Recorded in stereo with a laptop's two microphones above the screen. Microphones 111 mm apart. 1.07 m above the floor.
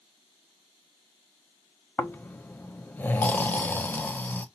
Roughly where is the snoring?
Centre.